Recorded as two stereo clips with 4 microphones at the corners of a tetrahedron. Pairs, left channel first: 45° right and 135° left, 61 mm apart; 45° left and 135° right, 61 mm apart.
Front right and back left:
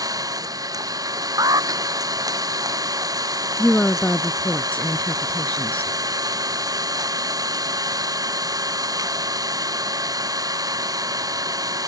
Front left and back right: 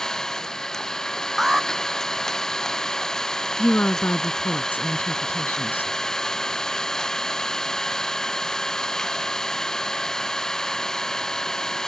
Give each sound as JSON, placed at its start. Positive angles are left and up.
{"t": 0.0, "sound": "an engine running", "azimuth_deg": 125}
{"t": 1.4, "sound": "an alarm", "azimuth_deg": 140}
{"t": 3.6, "sound": "a woman speaking", "azimuth_deg": 10}